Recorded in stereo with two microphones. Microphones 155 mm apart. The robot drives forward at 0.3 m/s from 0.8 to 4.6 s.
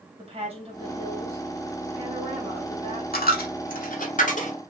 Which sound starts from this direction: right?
A woman speaking, at 0.2 s.